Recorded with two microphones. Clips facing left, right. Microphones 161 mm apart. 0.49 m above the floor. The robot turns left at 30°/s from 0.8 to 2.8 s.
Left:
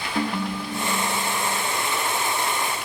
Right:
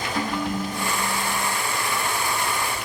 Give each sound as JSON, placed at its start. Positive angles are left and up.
{"t": 0.1, "sound": "a ringtone", "side_deg": 25, "distance_m": 0.6}